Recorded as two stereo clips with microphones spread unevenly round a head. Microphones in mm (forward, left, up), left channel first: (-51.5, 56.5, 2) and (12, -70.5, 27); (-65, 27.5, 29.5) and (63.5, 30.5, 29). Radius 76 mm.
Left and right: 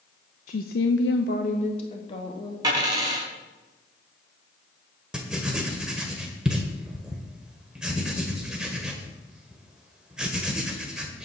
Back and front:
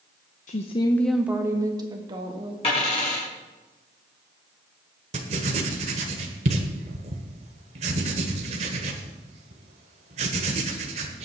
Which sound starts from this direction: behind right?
A dropped coin, at 2.6 s.